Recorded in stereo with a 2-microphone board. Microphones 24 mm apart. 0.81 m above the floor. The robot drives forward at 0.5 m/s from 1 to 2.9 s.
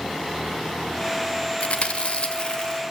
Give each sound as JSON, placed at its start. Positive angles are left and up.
{"t": 1.6, "sound": "chewing", "side_deg": 75, "distance_m": 1.2}